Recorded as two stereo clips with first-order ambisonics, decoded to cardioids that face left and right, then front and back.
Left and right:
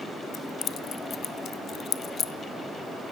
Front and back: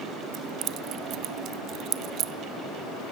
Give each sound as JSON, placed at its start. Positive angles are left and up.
{"t": 0.3, "sound": "keys jangling", "azimuth_deg": 145, "distance_m": 0.9}